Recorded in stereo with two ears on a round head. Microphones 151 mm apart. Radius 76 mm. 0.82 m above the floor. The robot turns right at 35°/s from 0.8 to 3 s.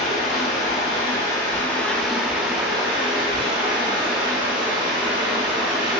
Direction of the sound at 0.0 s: 135° left.